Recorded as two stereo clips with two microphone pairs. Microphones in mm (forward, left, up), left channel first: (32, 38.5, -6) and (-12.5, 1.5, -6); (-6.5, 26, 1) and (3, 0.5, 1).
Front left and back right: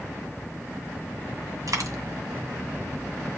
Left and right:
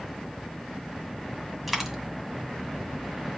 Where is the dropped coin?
155° right, 1.8 m.